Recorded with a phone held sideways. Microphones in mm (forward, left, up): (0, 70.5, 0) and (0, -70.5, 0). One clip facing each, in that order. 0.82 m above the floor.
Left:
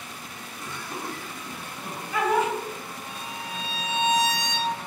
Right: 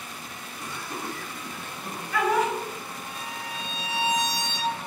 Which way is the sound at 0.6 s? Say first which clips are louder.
Even; 15° right (ahead or behind).